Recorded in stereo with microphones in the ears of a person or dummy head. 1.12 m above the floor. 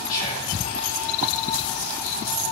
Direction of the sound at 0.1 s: 50° left (ahead or behind).